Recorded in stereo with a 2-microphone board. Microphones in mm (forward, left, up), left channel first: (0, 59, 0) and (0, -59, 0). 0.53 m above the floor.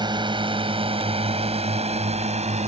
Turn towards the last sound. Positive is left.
turn(degrees=-70)  # may be behind; listen again after turning